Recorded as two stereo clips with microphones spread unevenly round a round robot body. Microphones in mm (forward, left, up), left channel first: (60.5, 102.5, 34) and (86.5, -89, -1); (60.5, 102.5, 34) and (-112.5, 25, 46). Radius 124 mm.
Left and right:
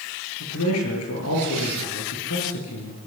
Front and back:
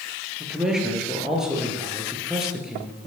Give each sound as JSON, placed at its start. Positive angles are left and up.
{"t": 0.4, "sound": "a man speaking", "azimuth_deg": 115, "distance_m": 9.0}